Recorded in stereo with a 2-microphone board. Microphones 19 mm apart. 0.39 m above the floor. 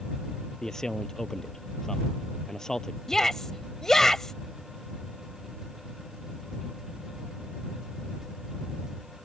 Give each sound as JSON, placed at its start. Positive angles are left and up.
{"t": 0.6, "sound": "a man speaking", "side_deg": 25}
{"t": 3.1, "sound": "a shout", "side_deg": 25}